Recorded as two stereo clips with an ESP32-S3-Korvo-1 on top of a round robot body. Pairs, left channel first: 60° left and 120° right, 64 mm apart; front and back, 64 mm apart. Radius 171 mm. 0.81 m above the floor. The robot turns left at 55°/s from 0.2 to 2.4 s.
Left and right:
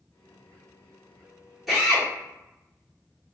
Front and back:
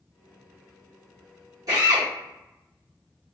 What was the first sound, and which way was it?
A drill, 155° left.